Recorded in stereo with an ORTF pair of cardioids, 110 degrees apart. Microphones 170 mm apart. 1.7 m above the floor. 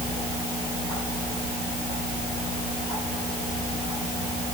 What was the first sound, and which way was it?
Only background noise.